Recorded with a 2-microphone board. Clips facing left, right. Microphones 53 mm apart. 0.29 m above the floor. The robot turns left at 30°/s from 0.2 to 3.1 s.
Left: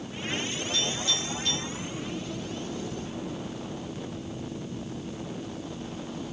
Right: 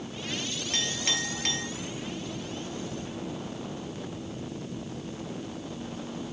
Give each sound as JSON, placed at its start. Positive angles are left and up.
{"t": 0.7, "sound": "a clink", "side_deg": -65, "distance_m": 5.0}